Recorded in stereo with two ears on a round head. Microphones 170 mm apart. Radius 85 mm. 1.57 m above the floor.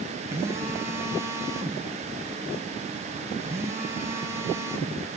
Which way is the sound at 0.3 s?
15° right (ahead or behind).